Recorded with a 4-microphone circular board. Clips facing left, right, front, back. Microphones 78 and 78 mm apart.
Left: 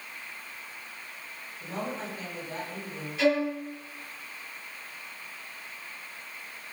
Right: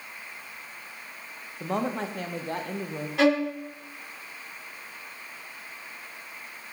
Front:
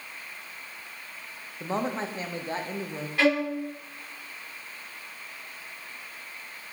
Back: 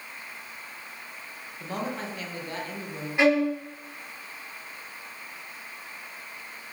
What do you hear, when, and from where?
1.6 s a woman speaking: 65° right, 1.0 m
3.2 s a violin: 110° right, 1.7 m